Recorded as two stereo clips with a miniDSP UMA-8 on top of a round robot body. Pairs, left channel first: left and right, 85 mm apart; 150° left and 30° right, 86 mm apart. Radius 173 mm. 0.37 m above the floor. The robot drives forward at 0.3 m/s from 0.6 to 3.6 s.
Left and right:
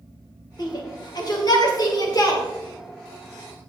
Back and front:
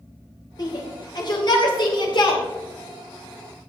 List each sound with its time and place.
0.6 s a shout: 120° left, 2.5 m; by 2.4 s 130° left, 3 m